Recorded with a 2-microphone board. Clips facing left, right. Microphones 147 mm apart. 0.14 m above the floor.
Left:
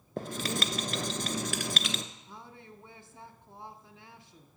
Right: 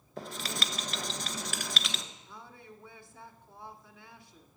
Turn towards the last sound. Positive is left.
turn(degrees=25)  # may be behind; listen again after turning